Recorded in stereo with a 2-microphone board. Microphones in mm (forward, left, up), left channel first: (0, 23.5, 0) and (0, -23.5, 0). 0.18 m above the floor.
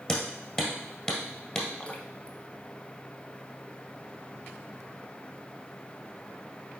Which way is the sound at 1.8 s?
30° left (ahead or behind).